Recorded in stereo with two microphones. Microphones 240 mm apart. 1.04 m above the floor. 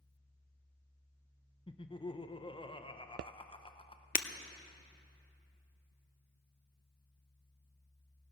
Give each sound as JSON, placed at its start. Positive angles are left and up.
{"t": 1.7, "sound": "laughter", "side_deg": 20, "distance_m": 0.8}
{"t": 4.2, "sound": "breaking glass", "side_deg": 35, "distance_m": 0.6}